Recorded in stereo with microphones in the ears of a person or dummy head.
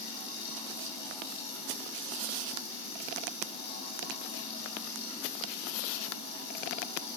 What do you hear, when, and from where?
0.0 s running water: 65° left (ahead or behind), 7 m